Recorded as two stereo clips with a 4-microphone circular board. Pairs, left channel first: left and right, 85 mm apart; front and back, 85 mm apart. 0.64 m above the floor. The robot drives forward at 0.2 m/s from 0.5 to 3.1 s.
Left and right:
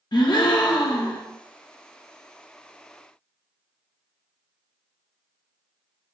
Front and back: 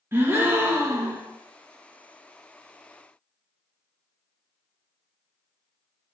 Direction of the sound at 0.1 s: 120° left.